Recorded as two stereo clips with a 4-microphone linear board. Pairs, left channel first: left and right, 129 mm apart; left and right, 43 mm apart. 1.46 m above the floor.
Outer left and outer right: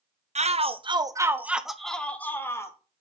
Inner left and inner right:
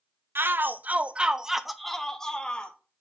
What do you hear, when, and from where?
0.3 s a shout: 60° right (ahead or behind), 0.7 m; by 2.8 s 20° left (ahead or behind), 1.1 m